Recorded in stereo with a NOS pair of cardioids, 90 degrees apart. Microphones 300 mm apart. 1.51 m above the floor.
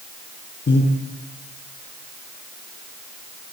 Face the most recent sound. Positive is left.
turn(degrees=35)